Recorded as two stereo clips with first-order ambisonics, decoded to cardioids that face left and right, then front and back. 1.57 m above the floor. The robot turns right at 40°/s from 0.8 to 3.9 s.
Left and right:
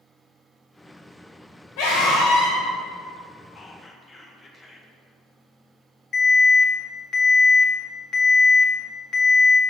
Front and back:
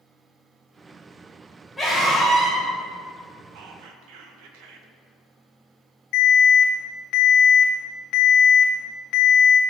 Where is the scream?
85° left, 3 m; by 2.6 s 115° left, 3 m.